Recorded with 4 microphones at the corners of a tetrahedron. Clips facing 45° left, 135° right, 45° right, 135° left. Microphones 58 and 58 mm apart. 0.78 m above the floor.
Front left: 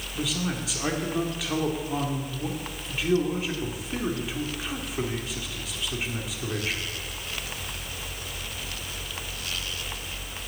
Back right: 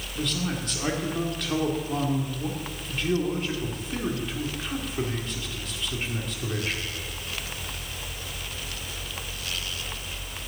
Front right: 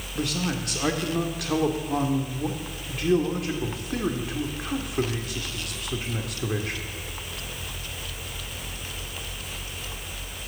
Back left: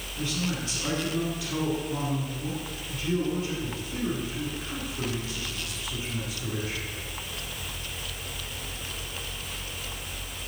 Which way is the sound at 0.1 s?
40° right.